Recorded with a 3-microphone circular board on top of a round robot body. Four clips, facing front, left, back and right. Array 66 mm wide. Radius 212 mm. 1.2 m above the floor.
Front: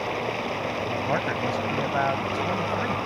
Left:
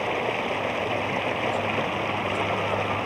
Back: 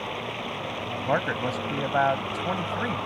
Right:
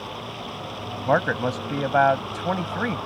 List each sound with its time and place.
0.0 s running water: 70° left
1.1 s a man speaking: 105° right